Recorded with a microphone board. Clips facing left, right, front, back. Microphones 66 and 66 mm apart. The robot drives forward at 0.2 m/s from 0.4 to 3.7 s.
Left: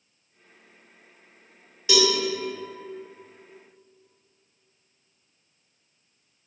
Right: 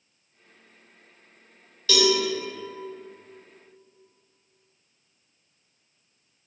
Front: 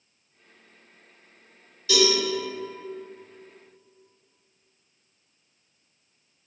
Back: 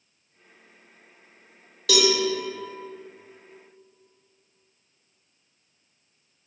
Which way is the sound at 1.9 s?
165° left.